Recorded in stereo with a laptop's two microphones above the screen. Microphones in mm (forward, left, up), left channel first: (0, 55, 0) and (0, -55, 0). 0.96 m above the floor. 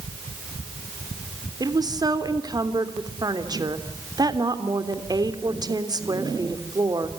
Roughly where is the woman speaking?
Right.